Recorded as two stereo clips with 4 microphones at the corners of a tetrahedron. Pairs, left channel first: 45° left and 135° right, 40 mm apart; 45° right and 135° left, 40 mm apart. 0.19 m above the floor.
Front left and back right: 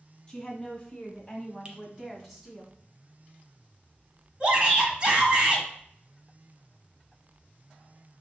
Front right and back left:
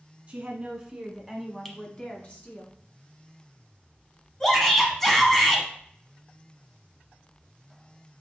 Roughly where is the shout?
Right.